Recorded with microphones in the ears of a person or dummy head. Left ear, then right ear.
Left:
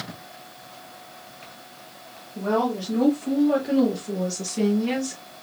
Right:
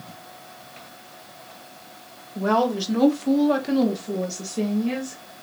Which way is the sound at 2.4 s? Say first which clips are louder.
Right 3 dB; 65° right (ahead or behind).